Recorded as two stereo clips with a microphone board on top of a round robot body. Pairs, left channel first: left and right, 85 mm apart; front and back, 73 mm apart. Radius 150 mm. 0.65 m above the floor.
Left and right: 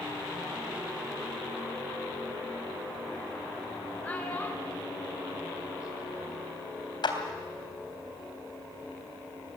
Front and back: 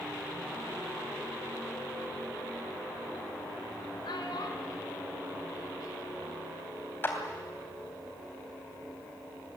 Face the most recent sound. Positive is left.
turn(degrees=60)